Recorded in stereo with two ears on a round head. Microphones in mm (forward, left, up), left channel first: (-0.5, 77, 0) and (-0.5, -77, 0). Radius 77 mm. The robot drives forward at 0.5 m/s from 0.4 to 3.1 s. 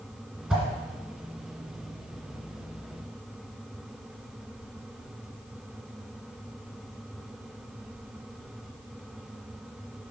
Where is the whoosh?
5° right (ahead or behind), 2.5 m.